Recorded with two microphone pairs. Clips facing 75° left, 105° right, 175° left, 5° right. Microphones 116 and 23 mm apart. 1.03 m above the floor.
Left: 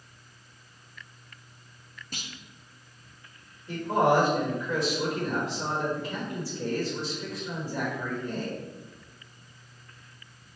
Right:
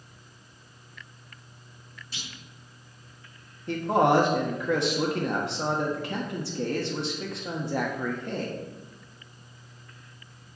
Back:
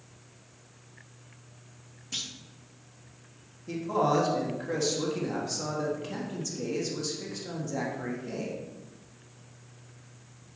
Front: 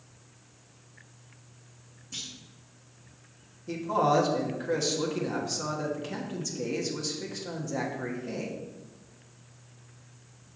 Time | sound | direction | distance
2.1 | a clunk | 115° left | 0.8 m
3.7 | a man speaking | 90° right | 1.3 m